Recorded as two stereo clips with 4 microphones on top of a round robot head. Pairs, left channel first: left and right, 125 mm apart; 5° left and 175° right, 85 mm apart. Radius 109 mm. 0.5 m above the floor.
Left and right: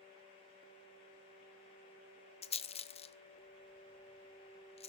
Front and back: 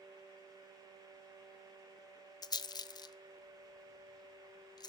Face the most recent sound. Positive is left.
turn(degrees=50)